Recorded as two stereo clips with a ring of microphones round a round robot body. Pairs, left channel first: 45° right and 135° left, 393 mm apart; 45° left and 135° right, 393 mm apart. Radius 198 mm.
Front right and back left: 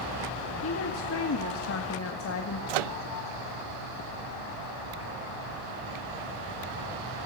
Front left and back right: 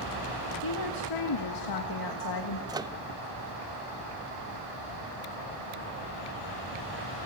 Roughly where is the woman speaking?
Ahead.